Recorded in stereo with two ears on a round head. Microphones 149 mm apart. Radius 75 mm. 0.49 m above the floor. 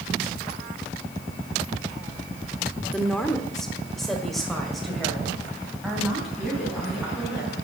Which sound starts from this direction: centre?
A woman speaking, at 2.9 s.